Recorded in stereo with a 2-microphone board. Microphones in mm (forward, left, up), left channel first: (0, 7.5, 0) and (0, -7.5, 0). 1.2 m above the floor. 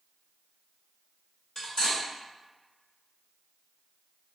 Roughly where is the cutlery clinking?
Left.